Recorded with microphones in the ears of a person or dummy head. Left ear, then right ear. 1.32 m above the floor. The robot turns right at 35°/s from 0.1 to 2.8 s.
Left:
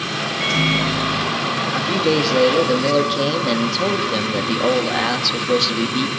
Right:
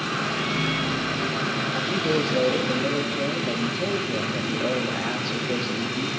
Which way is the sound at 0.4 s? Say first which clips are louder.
Left 7 dB; 115° left.